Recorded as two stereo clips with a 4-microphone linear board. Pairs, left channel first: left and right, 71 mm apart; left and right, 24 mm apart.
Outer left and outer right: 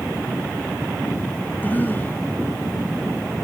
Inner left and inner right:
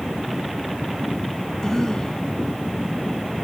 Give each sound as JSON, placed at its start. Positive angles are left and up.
{"t": 1.6, "sound": "a cough", "side_deg": 25}